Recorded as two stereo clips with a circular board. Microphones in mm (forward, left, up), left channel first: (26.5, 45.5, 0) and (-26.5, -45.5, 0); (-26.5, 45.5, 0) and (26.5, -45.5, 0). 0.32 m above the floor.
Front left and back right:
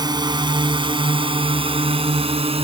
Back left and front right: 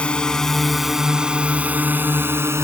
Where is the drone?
165° right; by 2.6 s 125° right.